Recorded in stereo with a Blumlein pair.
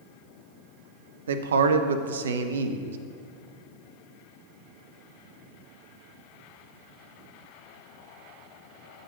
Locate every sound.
1.3 s a man speaking: 65° right, 0.5 m